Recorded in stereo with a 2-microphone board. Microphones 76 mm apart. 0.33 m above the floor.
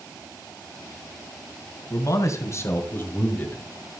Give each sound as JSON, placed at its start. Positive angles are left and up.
{"t": 1.9, "sound": "a man speaking", "side_deg": 50, "distance_m": 3.0}